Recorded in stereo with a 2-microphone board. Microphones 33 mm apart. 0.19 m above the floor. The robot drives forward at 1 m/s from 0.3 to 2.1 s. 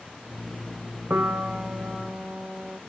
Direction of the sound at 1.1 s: 70° right (ahead or behind).